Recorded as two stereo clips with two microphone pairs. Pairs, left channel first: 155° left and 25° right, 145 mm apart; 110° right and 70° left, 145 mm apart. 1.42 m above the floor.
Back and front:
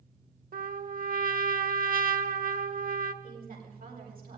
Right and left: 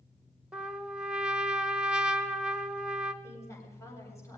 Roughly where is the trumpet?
Ahead.